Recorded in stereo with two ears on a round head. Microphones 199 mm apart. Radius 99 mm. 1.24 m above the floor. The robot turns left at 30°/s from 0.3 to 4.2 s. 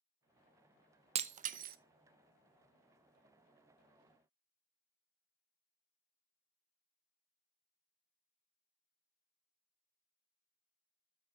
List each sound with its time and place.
1.1 s breaking glass: 30° right (ahead or behind), 0.6 m; by 1.8 s 45° right (ahead or behind), 0.6 m